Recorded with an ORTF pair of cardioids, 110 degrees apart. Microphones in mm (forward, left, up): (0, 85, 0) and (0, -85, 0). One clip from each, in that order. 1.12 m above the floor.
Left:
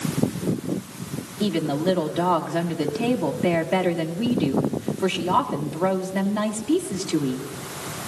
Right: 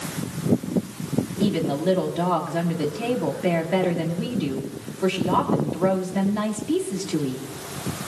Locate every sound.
1.4 s a woman speaking: 15° left, 2 m